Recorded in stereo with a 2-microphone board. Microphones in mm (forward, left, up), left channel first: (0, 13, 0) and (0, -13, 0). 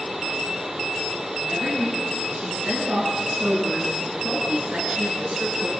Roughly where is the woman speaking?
Right.